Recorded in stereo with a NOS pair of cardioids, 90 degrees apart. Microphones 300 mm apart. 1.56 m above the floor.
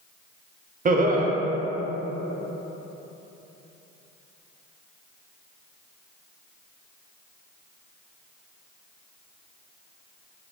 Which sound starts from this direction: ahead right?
Laughter, at 0.8 s.